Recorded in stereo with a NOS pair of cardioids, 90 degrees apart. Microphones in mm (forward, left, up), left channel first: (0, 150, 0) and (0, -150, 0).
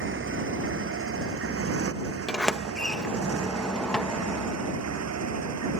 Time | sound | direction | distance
0.0 | a motorcycle | 40° right | ?
2.3 | a sliding door | straight ahead | ?